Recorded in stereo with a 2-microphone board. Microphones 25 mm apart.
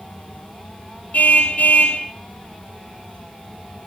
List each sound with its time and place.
1.1 s a car horn: 80° left, 3.5 m